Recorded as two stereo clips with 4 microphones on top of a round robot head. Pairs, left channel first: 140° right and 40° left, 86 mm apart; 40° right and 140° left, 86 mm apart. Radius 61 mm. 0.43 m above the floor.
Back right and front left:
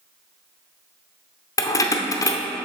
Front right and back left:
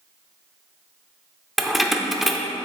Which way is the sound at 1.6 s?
130° right.